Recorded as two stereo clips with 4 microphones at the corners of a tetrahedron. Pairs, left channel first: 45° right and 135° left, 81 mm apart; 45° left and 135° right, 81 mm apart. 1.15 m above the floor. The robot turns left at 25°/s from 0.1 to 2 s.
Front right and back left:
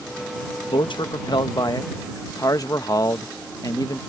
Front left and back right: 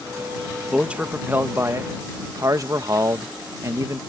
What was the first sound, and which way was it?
A man speaking, 55° right.